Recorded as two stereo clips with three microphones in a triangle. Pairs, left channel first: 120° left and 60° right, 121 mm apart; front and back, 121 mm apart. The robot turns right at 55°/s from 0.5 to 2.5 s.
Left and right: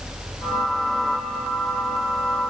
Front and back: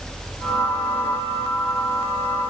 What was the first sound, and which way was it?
Only background noise.